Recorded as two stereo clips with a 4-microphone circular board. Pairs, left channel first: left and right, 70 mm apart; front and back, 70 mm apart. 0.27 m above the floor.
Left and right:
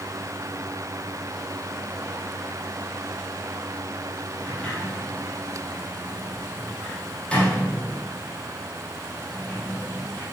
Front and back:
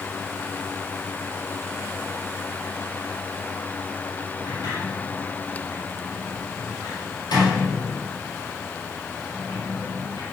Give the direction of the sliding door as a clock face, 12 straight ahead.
11 o'clock.